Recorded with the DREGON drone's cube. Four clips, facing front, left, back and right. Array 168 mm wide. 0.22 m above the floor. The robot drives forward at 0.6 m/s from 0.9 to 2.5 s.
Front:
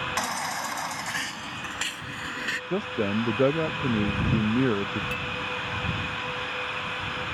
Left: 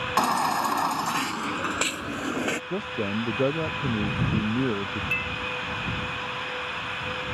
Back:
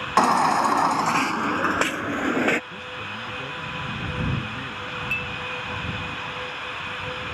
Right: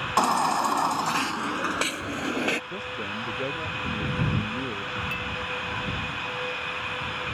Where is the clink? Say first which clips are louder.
Left 1 dB, even; 85° left.